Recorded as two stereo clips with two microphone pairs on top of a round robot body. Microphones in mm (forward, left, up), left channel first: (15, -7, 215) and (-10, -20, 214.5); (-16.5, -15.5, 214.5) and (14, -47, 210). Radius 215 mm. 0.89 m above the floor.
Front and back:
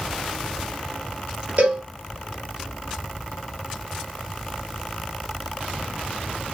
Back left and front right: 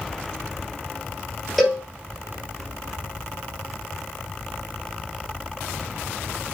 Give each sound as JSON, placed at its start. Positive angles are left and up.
{"t": 1.6, "sound": "a cowbell", "azimuth_deg": -135, "distance_m": 4.0}